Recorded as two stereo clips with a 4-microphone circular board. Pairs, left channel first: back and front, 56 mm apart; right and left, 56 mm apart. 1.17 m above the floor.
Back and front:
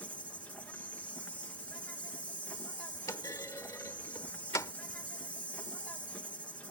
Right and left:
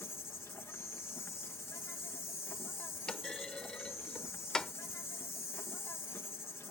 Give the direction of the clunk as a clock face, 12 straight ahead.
6 o'clock.